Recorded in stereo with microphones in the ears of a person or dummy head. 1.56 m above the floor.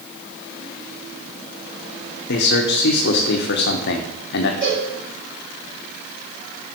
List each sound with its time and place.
2.3 s a man speaking: 60° left (ahead or behind), 1.2 m
4.6 s a cowbell: 30° right (ahead or behind), 4 m